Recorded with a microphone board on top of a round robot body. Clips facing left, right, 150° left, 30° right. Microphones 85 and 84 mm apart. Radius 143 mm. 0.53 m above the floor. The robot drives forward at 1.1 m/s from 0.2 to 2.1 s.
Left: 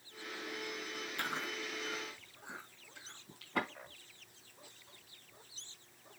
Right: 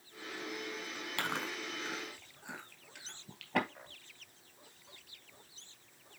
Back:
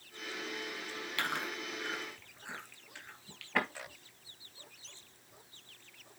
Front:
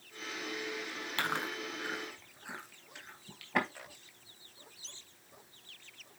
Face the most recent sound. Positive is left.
turn(degrees=-110)